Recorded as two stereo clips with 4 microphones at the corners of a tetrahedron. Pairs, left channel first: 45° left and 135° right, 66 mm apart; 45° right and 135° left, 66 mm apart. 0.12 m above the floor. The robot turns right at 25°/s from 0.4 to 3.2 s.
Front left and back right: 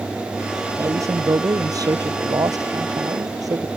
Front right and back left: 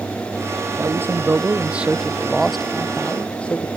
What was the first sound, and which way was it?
A man speaking, 175° right.